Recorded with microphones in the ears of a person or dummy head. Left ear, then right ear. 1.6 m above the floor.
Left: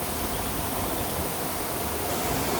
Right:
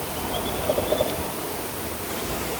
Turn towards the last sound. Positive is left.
No sound to turn to.